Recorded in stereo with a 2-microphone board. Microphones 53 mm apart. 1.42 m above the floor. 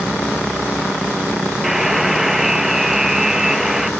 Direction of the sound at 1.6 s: 10° right (ahead or behind).